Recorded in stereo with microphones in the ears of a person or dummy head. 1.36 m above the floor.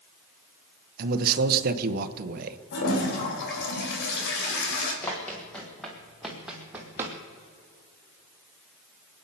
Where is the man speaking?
50° right (ahead or behind), 1.0 m.